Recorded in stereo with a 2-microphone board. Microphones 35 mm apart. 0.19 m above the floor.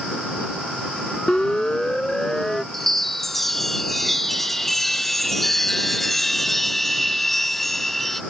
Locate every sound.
1.3 s a siren: 20° left (ahead or behind); by 2.6 s 10° left (ahead or behind)
2.7 s a chime: 5° left (ahead or behind)